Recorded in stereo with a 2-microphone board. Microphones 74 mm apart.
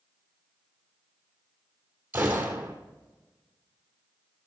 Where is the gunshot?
25° right (ahead or behind), 2.0 m.